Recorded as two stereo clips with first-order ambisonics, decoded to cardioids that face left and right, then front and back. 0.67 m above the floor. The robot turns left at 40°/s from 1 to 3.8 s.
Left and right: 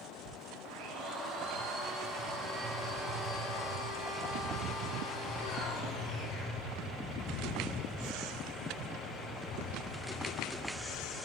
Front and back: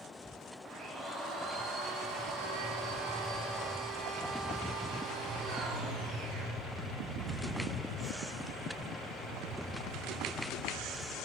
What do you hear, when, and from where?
0.7 s a blender: 115° right, 10 m; by 6.6 s 135° left, 10 m